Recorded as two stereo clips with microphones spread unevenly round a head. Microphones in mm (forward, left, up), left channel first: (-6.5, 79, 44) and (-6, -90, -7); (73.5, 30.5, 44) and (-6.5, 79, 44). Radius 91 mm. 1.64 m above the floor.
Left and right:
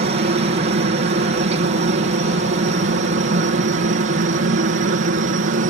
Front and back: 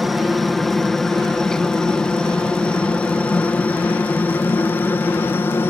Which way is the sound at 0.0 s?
120° right.